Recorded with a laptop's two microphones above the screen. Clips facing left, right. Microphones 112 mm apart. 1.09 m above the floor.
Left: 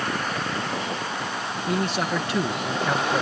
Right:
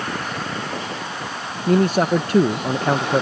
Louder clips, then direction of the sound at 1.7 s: Right 9 dB; 45° right (ahead or behind).